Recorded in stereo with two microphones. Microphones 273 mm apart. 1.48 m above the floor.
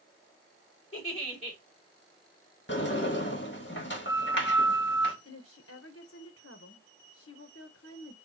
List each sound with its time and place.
0.9 s a giggle: 25° left (ahead or behind), 2.5 m
2.7 s a sliding door: 45° left (ahead or behind), 1.3 m
5.2 s a woman speaking: 60° left (ahead or behind), 1.0 m